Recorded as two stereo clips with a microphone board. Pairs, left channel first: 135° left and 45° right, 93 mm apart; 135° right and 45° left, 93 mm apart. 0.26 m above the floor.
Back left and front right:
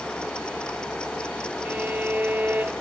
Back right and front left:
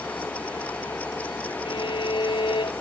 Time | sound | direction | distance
1.6 | a violin | 115° right | ?